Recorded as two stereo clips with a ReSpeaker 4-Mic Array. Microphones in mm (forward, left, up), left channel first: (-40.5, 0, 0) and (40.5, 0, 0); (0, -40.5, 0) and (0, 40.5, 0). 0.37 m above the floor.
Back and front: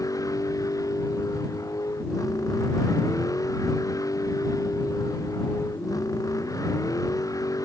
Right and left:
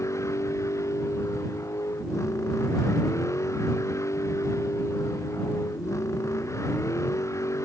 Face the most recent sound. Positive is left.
turn(degrees=-135)